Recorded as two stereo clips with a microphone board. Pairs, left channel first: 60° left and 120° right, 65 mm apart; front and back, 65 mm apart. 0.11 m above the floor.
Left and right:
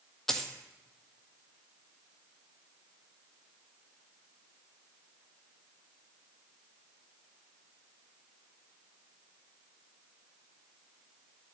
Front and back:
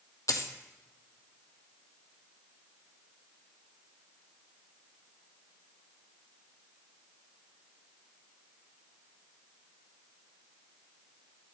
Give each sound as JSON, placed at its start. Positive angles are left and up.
{"t": 0.3, "sound": "a dropped coin", "azimuth_deg": -25, "distance_m": 0.7}